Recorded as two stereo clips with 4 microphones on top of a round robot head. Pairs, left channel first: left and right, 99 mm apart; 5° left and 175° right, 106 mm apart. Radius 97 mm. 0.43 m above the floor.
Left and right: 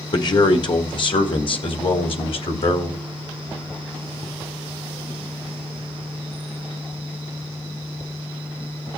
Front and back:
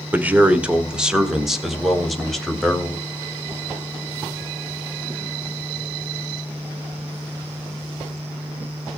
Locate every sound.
0.1 s a man speaking: 115° left, 1.7 m; by 3.0 s 90° left, 3 m